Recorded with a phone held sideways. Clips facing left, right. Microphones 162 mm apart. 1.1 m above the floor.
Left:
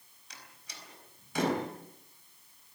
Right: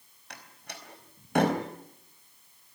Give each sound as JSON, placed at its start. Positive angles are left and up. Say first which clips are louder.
{"t": 0.3, "sound": "a door slam", "louder": "right 7 dB", "side_deg": -60, "distance_m": 4.0}